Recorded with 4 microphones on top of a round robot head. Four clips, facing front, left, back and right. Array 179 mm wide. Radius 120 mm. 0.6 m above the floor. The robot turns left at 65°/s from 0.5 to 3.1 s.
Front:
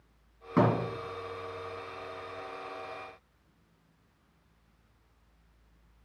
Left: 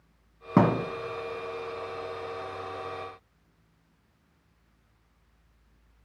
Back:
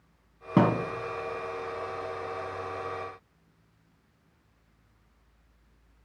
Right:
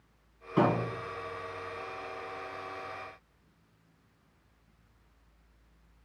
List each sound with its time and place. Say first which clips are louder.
0.6 s a thud: left 4 dB, back 2 dB; 120° left, 1.4 m; by 0.8 s 100° left, 1.4 m